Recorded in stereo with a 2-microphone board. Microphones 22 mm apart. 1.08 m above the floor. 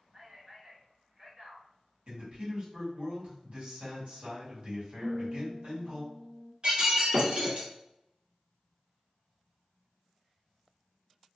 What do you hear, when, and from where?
0.1 s a man speaking: 55° right (ahead or behind), 1.5 m
2.1 s a man speaking: 50° right (ahead or behind), 1.6 m
5.0 s a guitar: 25° right (ahead or behind), 0.6 m
6.6 s breaking glass: 45° right (ahead or behind), 1.4 m